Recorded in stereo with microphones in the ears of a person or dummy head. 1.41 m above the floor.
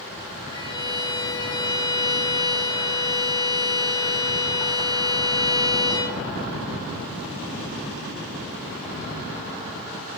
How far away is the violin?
About 0.7 m.